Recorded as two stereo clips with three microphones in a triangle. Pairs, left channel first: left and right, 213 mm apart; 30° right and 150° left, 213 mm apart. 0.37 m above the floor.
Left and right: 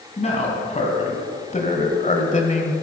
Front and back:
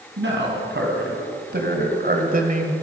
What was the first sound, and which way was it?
A man speaking, 140° left.